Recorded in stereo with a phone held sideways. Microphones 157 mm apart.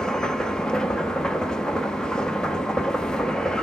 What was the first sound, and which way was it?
A machine running, 5° left (ahead or behind).